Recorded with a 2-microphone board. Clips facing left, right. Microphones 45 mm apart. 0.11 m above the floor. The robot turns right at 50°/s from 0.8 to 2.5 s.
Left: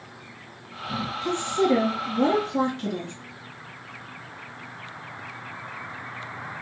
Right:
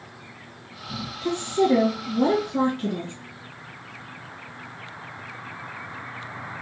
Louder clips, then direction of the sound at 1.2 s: Right 2 dB; centre (ahead or behind).